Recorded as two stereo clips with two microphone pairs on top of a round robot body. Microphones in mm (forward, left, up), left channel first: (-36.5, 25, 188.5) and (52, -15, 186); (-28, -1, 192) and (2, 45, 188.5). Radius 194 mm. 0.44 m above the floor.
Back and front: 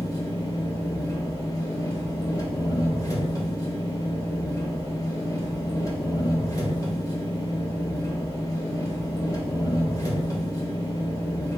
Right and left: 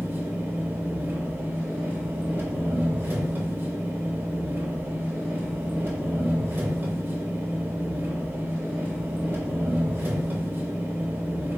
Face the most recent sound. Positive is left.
turn(degrees=105)